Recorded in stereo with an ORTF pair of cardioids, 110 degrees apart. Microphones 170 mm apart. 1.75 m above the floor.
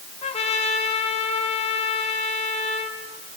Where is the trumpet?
35° left, 4.5 m.